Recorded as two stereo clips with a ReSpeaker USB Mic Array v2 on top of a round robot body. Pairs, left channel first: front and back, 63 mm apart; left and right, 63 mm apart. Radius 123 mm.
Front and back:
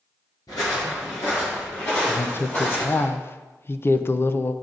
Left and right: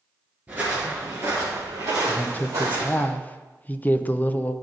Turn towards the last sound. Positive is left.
turn(degrees=35)